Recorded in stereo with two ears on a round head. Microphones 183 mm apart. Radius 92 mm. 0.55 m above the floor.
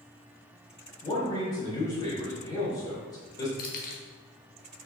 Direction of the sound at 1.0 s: 20° left (ahead or behind).